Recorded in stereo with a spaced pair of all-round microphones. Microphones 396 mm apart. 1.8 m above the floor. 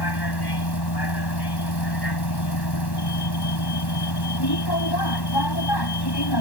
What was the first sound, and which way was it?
A vehicle, 75° left (ahead or behind).